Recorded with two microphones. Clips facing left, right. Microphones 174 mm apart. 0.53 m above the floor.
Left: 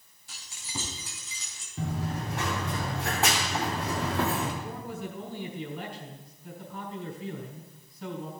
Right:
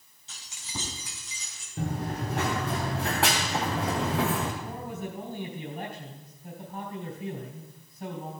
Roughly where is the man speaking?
Right.